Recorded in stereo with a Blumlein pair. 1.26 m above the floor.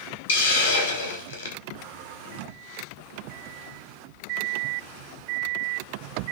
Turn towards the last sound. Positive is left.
turn(degrees=65)